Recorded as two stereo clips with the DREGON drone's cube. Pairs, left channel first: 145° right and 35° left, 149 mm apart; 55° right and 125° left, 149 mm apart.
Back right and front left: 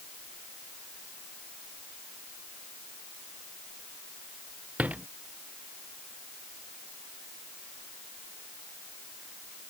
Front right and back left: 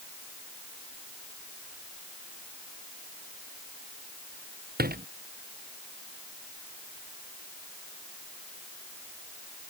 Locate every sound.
4.8 s a door slam: 115° left